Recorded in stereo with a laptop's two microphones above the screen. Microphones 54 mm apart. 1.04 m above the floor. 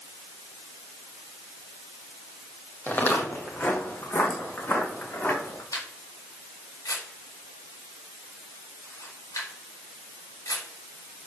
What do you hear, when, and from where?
2.9 s footsteps: 40° left (ahead or behind), 2.5 m; by 5.6 s 45° left (ahead or behind), 5 m
5.7 s a camera shutter: 85° left, 4 m